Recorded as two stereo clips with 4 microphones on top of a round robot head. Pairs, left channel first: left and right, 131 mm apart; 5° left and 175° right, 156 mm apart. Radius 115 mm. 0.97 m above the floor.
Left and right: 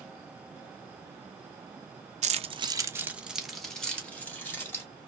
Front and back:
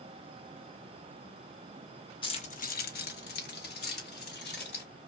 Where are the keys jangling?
60° right, 0.8 m; by 4.8 s 15° left, 2.5 m.